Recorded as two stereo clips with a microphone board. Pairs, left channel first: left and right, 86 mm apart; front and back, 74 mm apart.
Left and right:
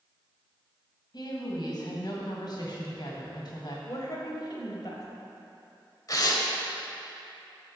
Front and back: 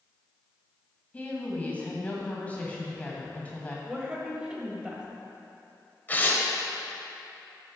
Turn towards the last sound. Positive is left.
turn(degrees=60)